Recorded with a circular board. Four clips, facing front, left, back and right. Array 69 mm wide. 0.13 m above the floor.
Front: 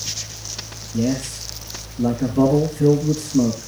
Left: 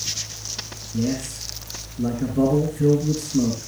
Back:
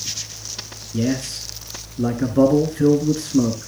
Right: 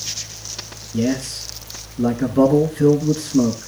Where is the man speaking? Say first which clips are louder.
Right 4 dB, even; 130° right, 1.4 m.